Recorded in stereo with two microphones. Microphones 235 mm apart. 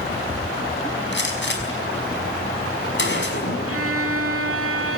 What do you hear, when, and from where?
1.1 s a gunshot: 50° left (ahead or behind), 5 m
3.7 s a violin: 65° right (ahead or behind), 2.5 m